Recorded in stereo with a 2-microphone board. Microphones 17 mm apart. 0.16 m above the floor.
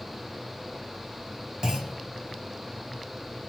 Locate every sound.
1.6 s a clunk: 45° right (ahead or behind), 2.5 m